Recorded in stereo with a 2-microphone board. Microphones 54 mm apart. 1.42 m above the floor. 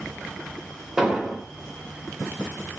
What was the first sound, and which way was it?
An explosion, 10° right (ahead or behind).